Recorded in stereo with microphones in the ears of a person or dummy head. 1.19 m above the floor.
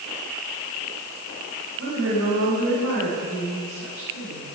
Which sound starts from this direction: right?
A woman speaking, at 1.8 s.